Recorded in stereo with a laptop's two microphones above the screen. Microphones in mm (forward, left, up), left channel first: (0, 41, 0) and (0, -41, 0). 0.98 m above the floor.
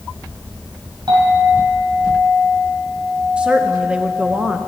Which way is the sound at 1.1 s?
70° right (ahead or behind).